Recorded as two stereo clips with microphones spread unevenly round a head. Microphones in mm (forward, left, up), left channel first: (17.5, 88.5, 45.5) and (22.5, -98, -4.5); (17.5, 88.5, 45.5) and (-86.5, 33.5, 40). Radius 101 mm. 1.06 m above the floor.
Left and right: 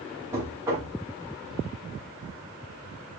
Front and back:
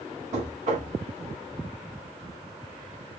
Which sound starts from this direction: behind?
Knocking, at 0.3 s.